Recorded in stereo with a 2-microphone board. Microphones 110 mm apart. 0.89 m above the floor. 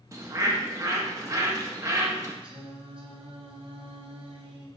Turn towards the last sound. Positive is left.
turn(degrees=-55)  # may be behind; listen again after turning